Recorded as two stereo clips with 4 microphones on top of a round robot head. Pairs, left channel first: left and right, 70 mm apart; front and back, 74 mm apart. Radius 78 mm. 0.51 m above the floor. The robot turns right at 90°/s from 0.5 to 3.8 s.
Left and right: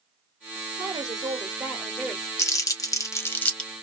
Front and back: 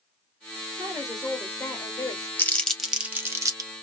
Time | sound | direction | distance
0.8 | a woman speaking | 125° right | 1.8 m
2.4 | crumpling | 50° left | 1.3 m